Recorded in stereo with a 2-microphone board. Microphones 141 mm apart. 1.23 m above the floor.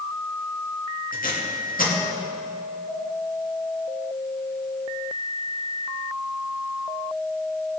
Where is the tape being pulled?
80° left, 2.5 m.